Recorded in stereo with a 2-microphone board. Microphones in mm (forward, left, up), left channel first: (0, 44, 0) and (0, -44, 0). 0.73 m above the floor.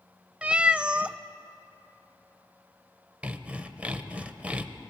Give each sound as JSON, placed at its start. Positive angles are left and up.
{"t": 0.4, "sound": "a cat meowing", "side_deg": -15, "distance_m": 0.5}
{"t": 3.2, "sound": "sawing", "side_deg": -15, "distance_m": 0.9}